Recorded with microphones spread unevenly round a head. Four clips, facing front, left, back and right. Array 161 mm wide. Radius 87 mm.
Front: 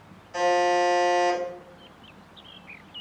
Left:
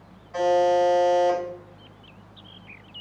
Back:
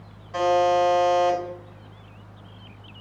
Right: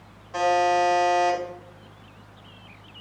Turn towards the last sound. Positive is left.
turn(degrees=-135)